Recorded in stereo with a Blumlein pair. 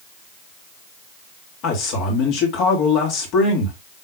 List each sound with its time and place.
1.6 s a man speaking: 40° left, 2 m